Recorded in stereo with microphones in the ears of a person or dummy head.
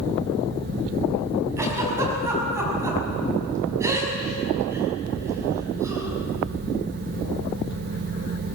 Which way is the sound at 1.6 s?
15° right (ahead or behind).